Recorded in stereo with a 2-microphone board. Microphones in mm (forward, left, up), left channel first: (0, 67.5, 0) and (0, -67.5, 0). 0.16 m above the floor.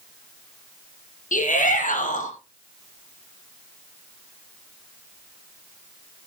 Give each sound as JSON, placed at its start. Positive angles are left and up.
{"t": 1.3, "sound": "a shout", "side_deg": 65, "distance_m": 4.0}